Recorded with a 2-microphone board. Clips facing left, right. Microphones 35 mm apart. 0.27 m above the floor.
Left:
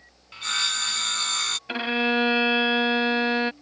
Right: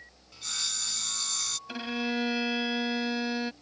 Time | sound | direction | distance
0.3 | sawing | 50° left (ahead or behind) | ?
1.7 | a violin | 45° left (ahead or behind) | ?